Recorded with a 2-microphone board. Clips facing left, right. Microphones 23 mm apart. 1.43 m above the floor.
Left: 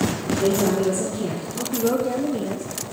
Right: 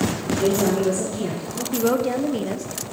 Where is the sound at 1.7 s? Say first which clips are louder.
Right 1 dB; 45° right (ahead or behind), 0.6 m.